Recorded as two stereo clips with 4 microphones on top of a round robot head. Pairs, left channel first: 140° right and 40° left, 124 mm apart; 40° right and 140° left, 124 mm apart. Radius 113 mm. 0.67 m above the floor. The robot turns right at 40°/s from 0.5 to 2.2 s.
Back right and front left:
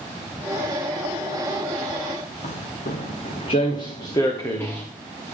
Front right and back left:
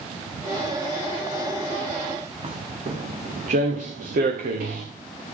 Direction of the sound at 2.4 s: 170° right.